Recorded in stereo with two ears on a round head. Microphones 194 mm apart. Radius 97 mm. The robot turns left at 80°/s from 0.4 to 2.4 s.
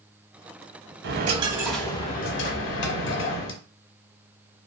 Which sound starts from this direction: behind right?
A dropped coin, at 1.0 s.